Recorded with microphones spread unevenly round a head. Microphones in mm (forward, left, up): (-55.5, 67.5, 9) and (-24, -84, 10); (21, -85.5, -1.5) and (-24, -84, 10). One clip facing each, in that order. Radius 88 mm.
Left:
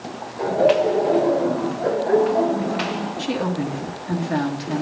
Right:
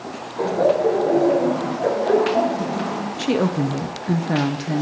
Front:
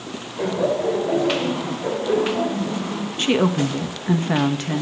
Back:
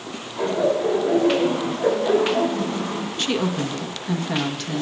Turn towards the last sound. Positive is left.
turn(degrees=-45)